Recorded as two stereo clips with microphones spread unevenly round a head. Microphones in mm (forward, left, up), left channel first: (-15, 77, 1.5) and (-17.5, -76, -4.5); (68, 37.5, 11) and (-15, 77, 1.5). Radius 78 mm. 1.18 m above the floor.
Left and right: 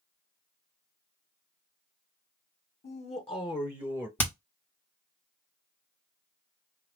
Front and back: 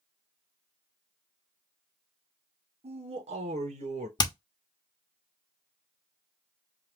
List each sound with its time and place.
2.8 s a man speaking: 135° left, 1.1 m; by 4.1 s 175° left, 0.8 m
4.2 s hammering: 10° left, 1.0 m